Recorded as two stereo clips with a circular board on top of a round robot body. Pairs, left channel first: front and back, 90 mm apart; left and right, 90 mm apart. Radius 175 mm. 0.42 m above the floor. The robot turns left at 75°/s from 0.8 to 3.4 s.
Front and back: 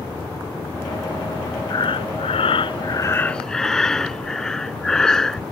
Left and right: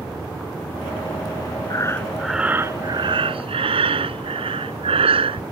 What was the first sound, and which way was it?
Breathing, 45° left.